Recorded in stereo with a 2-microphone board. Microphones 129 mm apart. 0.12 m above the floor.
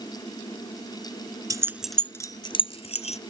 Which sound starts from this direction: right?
Keys jangling, at 1.5 s.